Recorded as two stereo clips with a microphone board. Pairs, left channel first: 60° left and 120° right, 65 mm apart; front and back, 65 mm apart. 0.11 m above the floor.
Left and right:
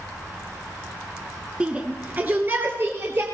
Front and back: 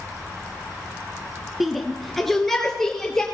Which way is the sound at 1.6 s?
95° right.